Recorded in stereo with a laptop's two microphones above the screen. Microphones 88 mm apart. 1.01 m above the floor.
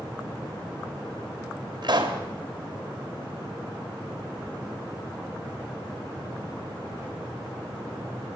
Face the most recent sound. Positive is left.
turn(degrees=-55)  # may be behind; listen again after turning